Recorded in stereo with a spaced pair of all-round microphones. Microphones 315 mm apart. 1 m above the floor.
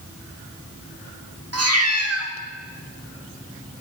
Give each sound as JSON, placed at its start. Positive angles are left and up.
{"t": 1.5, "sound": "a cat meowing", "side_deg": -50, "distance_m": 1.1}